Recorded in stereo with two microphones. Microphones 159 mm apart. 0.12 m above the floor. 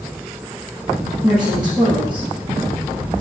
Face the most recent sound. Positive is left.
turn(degrees=-40)  # may be behind; listen again after turning